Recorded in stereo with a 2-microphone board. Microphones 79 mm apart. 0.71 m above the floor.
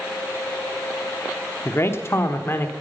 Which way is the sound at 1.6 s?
35° left (ahead or behind).